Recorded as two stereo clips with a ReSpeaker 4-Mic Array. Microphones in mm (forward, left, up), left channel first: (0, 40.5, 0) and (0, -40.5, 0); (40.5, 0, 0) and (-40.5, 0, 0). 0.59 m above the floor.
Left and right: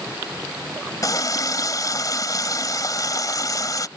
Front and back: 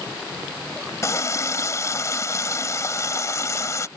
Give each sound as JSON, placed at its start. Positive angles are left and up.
{"t": 1.0, "sound": "a running tap", "azimuth_deg": 50}